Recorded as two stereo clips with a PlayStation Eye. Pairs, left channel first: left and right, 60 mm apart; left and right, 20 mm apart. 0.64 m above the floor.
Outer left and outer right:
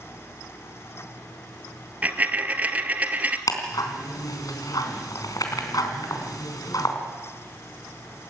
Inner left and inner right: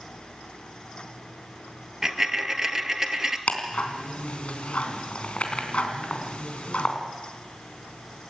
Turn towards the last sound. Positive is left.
turn(degrees=85)